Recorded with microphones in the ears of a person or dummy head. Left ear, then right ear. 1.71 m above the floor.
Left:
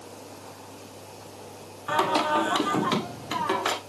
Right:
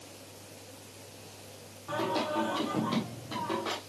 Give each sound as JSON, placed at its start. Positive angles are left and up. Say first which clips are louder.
{"t": 1.9, "sound": "singing", "louder": "left 8 dB", "side_deg": 70, "distance_m": 1.3}